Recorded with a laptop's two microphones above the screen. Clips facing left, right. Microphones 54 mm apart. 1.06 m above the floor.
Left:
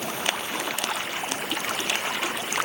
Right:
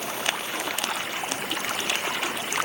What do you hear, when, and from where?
Only background noise.